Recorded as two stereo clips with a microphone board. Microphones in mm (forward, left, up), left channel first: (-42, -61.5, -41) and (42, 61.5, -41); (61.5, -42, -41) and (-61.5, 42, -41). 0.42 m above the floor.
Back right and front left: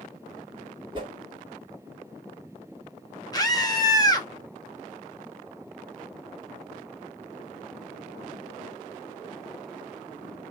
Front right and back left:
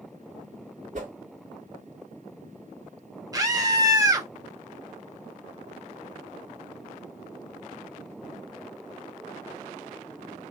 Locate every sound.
0.9 s a whoosh: 115° left, 1.3 m
3.3 s a scream: 170° right, 1.1 m